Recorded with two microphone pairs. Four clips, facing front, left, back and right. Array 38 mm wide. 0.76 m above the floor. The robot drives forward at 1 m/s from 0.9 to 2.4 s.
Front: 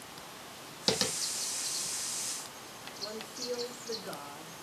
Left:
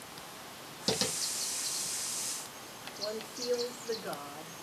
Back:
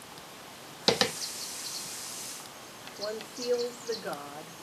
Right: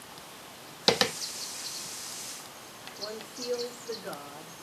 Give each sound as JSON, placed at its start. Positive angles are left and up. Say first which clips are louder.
{"t": 0.9, "sound": "tapping", "louder": "right 8 dB, back 5 dB", "azimuth_deg": -110, "distance_m": 0.6}
{"t": 3.0, "sound": "a woman speaking", "louder": "left 1 dB, back 6 dB", "azimuth_deg": 165, "distance_m": 1.8}